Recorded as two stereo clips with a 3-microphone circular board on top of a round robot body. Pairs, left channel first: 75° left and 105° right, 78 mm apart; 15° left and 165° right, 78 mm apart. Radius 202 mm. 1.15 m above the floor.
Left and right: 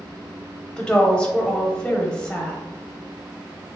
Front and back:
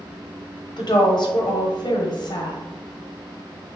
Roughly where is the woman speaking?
Ahead.